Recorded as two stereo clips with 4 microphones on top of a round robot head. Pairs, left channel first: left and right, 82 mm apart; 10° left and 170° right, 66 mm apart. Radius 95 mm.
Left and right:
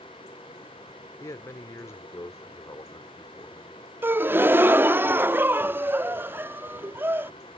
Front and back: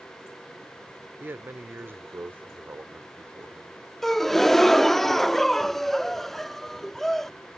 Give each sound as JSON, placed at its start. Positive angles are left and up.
{"t": 1.2, "sound": "a man speaking", "azimuth_deg": 140}
{"t": 4.0, "sound": "a gasp", "azimuth_deg": -70}